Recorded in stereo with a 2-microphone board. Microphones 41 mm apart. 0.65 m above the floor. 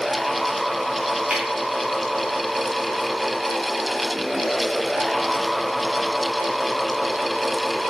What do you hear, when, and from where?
1.3 s a finger snap: 40° right (ahead or behind), 2.5 m